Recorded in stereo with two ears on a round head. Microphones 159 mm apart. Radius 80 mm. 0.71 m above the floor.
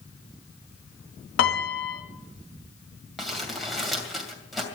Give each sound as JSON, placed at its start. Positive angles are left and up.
{"t": 1.4, "sound": "a piano", "side_deg": 85, "distance_m": 1.8}
{"t": 3.2, "sound": "crumpling", "side_deg": 0, "distance_m": 2.5}